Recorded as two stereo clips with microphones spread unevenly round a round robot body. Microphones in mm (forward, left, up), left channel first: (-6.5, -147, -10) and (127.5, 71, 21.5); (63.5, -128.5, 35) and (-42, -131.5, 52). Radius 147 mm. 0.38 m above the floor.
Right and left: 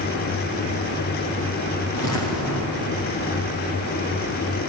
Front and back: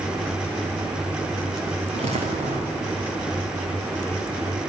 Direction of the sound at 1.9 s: 165° right.